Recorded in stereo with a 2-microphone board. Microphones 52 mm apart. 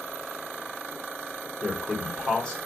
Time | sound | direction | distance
1.6 | a man speaking | 15° left (ahead or behind) | 1.2 m